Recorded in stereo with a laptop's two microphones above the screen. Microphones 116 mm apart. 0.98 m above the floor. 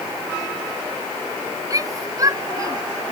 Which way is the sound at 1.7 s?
30° right (ahead or behind).